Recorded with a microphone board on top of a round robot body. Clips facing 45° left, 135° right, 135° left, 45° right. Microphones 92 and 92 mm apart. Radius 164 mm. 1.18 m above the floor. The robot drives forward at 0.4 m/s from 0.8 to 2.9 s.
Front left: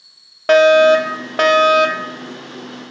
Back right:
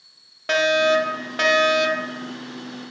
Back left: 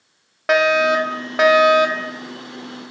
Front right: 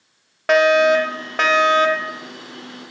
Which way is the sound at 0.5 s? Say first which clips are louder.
Front left 9 dB, front right 2 dB; 50° left.